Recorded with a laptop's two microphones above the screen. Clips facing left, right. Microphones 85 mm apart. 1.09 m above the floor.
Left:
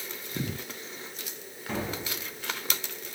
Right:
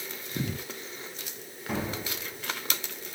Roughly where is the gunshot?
Centre.